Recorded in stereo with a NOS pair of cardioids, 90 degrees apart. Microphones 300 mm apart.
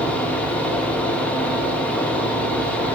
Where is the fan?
5° left, 0.9 m.